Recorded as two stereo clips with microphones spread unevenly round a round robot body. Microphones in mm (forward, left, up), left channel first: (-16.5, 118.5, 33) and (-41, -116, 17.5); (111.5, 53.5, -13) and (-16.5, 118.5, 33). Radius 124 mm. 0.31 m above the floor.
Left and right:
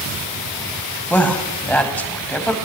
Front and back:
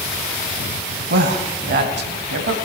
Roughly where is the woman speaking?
Behind.